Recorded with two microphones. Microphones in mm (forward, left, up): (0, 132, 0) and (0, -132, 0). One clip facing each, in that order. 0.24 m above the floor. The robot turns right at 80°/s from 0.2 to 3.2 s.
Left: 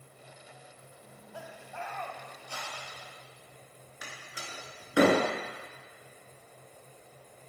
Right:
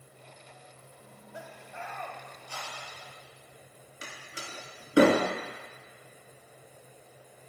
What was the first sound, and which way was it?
Laughter, 15° right (ahead or behind).